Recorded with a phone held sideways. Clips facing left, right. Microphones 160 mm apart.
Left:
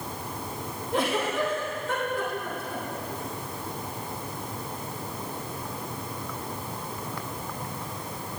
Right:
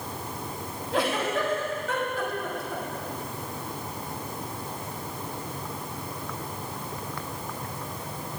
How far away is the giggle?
About 3 m.